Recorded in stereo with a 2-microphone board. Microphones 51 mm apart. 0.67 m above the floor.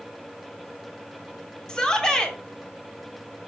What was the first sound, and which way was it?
A shout, 15° left (ahead or behind).